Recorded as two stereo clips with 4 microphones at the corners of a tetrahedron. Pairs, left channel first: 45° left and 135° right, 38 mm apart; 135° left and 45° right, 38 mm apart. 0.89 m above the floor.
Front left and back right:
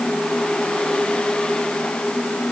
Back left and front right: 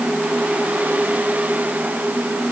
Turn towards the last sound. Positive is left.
No sound to turn to.